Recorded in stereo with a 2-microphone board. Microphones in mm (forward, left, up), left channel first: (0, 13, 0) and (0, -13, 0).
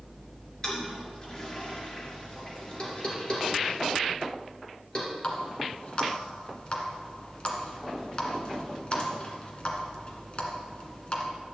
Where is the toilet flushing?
30° left (ahead or behind), 3 m.